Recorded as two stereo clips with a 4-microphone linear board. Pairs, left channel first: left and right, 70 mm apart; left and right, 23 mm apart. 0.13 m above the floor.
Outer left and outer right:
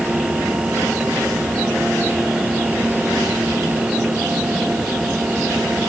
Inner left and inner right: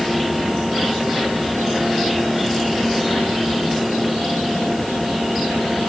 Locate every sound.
Only background noise.